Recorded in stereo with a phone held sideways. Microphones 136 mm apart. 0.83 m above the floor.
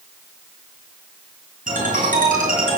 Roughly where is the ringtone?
Right.